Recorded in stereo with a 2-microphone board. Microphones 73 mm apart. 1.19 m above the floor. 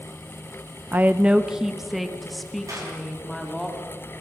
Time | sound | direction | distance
0.9 | a woman speaking | 25° right (ahead or behind) | 0.5 m
2.7 | a clap | 50° right (ahead or behind) | 7.5 m